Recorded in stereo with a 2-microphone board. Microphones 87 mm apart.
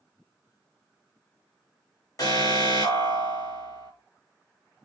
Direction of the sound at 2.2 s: 45° left (ahead or behind).